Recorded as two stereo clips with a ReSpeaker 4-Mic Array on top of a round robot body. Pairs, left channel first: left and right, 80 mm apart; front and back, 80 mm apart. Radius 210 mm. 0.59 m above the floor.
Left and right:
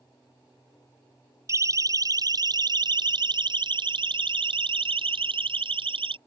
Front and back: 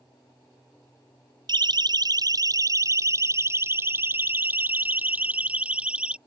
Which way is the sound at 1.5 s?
145° right.